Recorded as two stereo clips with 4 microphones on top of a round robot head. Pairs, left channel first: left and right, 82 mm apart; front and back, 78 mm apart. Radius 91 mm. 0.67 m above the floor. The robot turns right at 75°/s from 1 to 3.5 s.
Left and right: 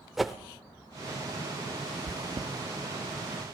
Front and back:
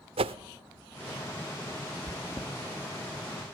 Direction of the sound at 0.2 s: Straight behind.